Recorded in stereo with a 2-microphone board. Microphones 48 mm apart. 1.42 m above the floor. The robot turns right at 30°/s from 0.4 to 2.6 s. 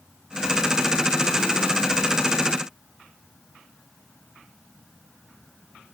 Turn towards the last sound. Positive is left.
No sound to turn to.